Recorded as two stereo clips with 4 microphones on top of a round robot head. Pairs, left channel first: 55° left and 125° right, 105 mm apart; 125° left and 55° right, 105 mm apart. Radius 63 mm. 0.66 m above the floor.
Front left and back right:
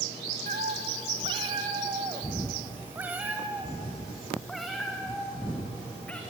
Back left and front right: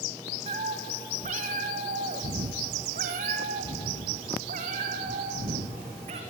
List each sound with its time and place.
0.5 s a cat meowing: 95° right, 2 m; by 6.2 s 25° right, 4 m